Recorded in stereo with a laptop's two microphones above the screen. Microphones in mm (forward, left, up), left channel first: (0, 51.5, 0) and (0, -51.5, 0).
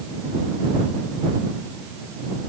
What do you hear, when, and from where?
Only background noise.